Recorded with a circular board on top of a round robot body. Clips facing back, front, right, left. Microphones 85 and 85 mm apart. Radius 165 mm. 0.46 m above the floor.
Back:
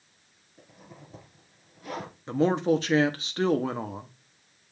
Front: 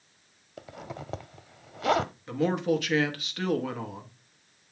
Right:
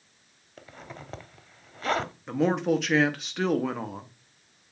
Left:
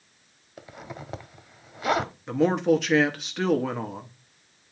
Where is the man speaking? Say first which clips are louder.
Back 4 dB, left 3 dB; straight behind, 1.3 m.